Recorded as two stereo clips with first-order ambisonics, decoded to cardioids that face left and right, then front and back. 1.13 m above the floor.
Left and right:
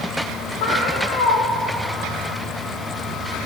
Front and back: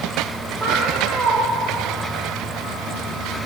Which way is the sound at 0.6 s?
110° left.